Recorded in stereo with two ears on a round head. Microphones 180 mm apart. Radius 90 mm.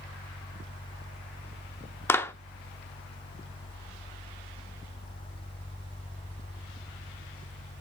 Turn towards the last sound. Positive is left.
turn(degrees=10)  # may be behind; listen again after turning